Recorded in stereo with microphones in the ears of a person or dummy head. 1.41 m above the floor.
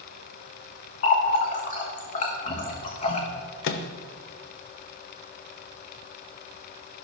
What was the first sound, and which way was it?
A running tap, 45° left (ahead or behind).